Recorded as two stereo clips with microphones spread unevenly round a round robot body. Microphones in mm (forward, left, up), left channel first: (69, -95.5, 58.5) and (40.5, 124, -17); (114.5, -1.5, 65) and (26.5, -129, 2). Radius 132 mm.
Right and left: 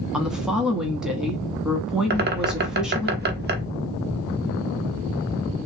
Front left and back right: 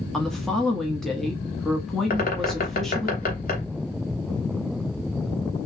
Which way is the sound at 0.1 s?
165° left.